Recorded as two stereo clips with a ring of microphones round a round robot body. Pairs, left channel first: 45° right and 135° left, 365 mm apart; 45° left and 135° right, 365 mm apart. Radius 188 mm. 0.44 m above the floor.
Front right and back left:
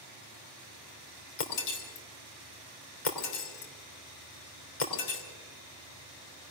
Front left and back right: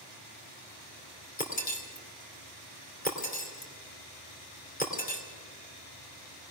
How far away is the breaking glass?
About 3 m.